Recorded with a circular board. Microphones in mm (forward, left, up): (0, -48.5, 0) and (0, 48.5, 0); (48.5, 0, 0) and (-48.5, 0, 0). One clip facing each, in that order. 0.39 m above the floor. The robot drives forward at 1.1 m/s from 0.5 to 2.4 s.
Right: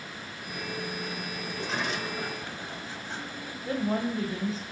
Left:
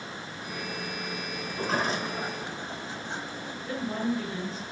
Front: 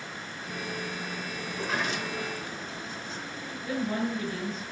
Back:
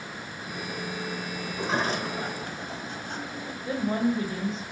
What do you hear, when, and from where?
1.5 s a sliding door: 95° left, 0.6 m; by 3.5 s 155° left, 1.2 m
3.6 s a woman speaking: 130° right, 1.5 m